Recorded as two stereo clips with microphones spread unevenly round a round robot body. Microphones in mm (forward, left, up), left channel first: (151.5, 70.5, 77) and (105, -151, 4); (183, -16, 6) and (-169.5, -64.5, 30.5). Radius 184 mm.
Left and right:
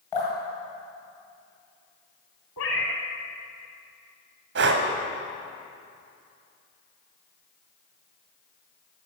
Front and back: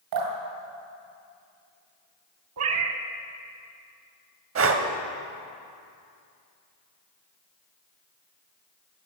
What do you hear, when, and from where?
0.1 s dripping: 165° left, 2 m
2.6 s a cat meowing: 135° left, 0.5 m
4.5 s breathing: 120° right, 0.8 m